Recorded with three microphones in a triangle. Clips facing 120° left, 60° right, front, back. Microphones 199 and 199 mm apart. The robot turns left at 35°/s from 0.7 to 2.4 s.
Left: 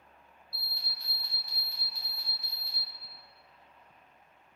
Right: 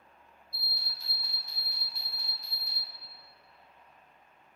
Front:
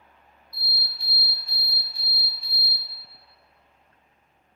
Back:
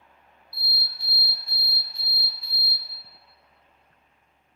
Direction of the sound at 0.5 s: 125° left.